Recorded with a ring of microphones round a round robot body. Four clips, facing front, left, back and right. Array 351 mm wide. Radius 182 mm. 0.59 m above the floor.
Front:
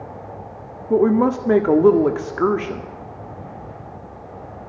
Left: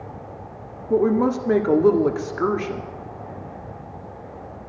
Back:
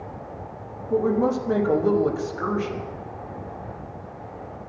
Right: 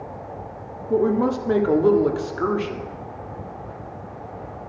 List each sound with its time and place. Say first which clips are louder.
0.9 s a woman speaking: left 1 dB, front 5 dB; 15° left, 1.7 m